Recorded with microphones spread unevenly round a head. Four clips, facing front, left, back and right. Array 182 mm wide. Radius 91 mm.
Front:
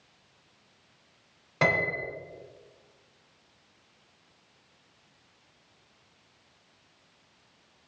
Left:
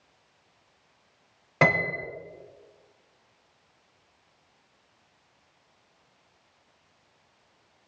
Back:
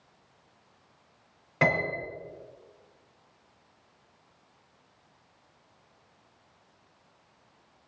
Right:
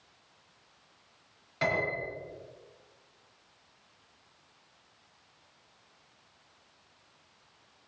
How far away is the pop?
I don't hear a pop.